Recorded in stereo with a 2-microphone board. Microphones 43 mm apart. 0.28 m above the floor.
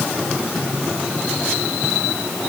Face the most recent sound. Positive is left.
No sound to turn to.